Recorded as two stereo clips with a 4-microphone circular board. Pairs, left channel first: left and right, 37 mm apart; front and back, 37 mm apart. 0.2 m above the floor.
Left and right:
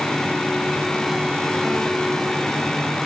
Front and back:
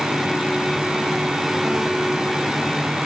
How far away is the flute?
I don't hear a flute.